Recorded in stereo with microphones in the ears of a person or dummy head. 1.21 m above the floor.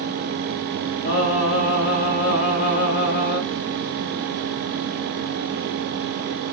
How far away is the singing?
About 5.5 m.